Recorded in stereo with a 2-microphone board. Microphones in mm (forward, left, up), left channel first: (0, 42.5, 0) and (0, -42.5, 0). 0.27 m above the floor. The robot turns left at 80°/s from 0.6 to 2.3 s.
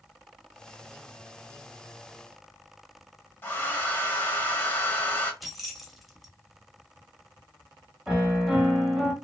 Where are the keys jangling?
Centre (ahead or behind), 0.7 m.